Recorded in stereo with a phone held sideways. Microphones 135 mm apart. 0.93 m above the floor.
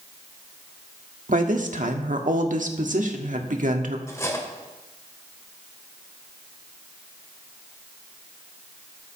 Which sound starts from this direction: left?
Cutlery clinking, at 4.1 s.